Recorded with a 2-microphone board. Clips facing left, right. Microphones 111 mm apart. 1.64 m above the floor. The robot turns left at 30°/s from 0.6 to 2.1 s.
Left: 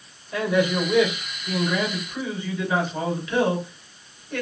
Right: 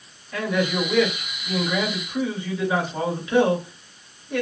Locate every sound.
0.3 s a man speaking: 20° left, 2 m; by 4.4 s 25° right, 2 m